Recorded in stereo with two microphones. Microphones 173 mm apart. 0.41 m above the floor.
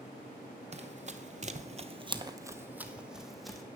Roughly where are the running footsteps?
Right.